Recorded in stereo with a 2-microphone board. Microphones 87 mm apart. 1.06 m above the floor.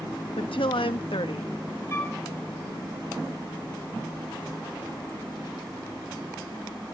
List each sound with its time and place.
0.4 s a woman speaking: 85° left, 1.1 m
1.9 s a flute: 30° left (ahead or behind), 4 m